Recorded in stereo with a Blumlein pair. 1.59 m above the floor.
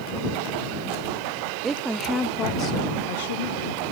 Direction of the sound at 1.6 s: 20° right.